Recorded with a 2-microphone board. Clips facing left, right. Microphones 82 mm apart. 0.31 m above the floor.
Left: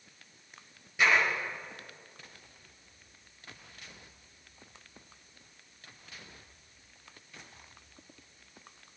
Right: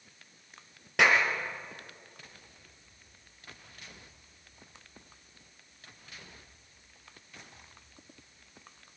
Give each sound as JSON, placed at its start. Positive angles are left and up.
{"t": 1.0, "sound": "a clap", "side_deg": -70, "distance_m": 5.5}